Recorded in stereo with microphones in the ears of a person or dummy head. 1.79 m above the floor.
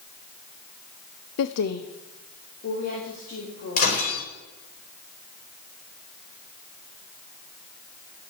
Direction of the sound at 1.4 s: 70° left (ahead or behind).